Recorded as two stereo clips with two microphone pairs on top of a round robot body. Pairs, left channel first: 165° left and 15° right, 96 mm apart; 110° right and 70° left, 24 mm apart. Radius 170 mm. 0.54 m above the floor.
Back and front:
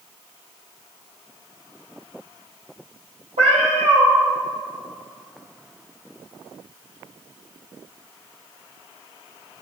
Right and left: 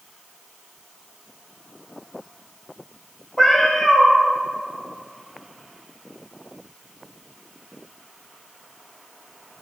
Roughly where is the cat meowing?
Ahead right.